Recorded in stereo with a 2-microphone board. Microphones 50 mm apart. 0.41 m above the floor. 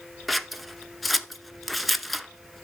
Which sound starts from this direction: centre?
Scissors, at 0.3 s.